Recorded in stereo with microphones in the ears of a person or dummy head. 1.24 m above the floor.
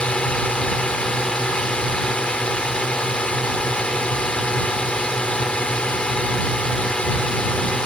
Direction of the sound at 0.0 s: 5° left (ahead or behind).